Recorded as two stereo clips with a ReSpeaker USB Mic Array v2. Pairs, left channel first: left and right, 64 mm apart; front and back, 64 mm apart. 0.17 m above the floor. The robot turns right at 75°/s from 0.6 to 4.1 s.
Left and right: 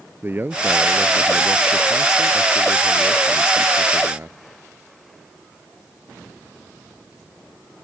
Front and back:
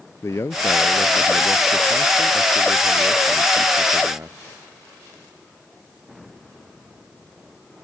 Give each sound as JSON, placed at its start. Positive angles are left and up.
{"t": 0.2, "sound": "a man speaking", "azimuth_deg": -40}